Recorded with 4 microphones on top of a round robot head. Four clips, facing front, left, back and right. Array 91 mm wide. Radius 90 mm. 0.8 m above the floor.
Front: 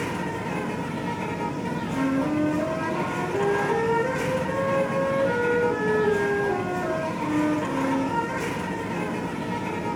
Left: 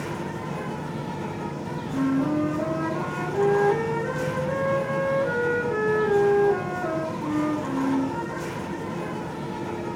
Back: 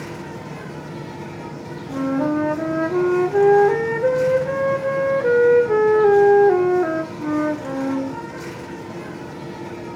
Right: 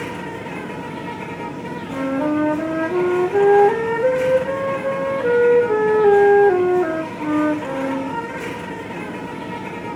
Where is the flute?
130° right, 3 m.